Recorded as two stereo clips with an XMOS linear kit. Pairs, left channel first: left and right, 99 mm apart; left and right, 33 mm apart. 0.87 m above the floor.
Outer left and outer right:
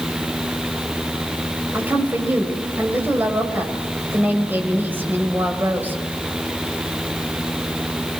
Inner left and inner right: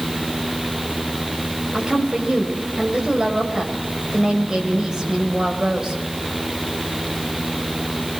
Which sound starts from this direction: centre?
A woman speaking, at 1.7 s.